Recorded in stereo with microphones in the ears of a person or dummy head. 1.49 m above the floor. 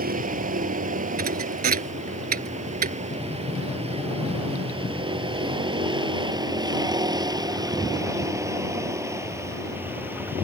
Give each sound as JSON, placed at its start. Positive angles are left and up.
{"t": 0.0, "sound": "a vehicle", "side_deg": -40}
{"t": 1.2, "sound": "a thud", "side_deg": -45}
{"t": 3.1, "sound": "a sliding door", "side_deg": 25}